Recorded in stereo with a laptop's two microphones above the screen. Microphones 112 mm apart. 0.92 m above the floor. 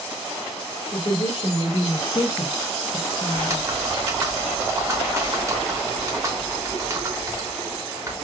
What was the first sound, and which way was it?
A woman speaking, 45° left (ahead or behind).